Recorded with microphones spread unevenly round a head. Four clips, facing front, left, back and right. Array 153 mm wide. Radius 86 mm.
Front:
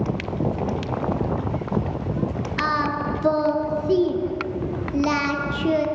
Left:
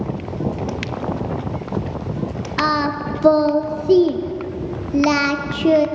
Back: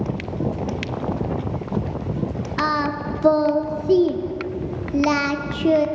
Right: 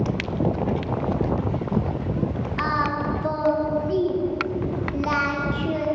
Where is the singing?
80° left, 0.9 m.